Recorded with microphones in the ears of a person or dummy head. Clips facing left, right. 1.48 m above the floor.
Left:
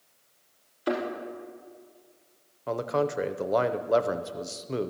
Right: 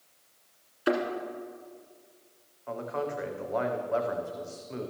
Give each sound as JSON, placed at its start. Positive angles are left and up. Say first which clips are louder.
{"t": 0.9, "sound": "a thud", "louder": "right 2 dB", "side_deg": -20, "distance_m": 1.6}
{"t": 2.7, "sound": "a man speaking", "louder": "left 6 dB", "side_deg": 50, "distance_m": 0.5}